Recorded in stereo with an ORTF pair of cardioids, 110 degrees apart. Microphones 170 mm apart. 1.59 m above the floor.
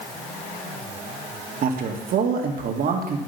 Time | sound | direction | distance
1.6 | a man speaking | 60° right | 1.9 m